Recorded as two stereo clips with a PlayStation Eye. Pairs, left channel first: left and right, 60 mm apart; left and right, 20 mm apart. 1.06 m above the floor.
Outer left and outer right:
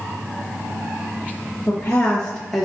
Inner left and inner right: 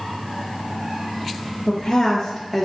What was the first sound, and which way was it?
A woman speaking, 40° left (ahead or behind).